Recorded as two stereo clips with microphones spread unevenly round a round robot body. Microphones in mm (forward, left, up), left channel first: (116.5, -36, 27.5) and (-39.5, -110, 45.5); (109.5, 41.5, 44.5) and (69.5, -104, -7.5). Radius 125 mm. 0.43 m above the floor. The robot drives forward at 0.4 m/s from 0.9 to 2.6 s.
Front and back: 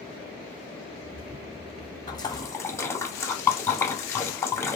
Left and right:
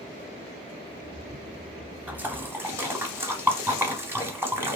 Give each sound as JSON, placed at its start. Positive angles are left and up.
{"t": 2.1, "sound": "a splash", "azimuth_deg": -35, "distance_m": 1.0}